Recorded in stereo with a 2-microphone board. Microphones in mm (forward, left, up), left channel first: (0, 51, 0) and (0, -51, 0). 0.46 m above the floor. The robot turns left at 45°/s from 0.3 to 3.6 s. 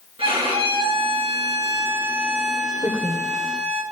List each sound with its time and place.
0.2 s a violin: 80° right, 4 m; by 3.8 s 130° left, 4 m
2.8 s a woman speaking: 40° right (ahead or behind), 1.5 m; by 3.3 s 50° right (ahead or behind), 1.5 m